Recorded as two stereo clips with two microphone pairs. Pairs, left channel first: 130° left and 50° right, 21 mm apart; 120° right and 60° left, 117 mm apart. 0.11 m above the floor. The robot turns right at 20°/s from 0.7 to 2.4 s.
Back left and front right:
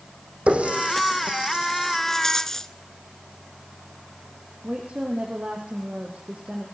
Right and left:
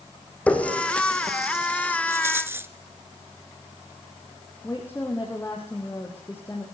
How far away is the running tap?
About 3.5 m.